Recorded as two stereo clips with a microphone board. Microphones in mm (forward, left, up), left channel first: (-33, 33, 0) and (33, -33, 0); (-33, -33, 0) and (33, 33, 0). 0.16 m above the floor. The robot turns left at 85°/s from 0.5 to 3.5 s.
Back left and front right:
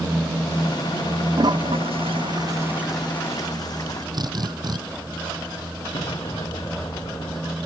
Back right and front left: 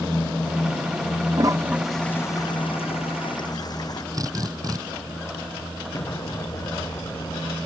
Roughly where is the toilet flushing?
Ahead.